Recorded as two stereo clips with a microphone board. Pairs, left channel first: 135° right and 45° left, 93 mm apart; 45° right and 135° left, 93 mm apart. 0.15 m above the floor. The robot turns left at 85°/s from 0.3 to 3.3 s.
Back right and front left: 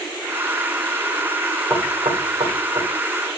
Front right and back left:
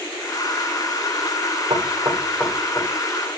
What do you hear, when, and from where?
1.7 s knocking: 120° left, 9 m; by 2.9 s 20° left, 9 m